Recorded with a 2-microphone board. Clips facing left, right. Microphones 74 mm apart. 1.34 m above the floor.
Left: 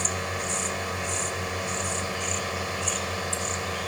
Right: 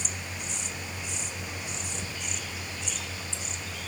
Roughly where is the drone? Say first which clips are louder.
Left 9 dB; left.